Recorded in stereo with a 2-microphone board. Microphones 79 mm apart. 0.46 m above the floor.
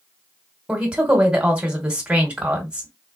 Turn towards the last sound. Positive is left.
turn(degrees=-10)  # may be behind; listen again after turning